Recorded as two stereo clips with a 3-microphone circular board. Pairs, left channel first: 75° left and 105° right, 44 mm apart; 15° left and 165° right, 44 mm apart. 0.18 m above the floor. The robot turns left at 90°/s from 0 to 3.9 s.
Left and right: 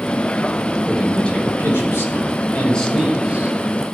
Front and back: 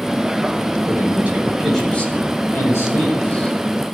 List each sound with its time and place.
0.9 s a man speaking: straight behind, 7 m; by 3.5 s 65° right, 7 m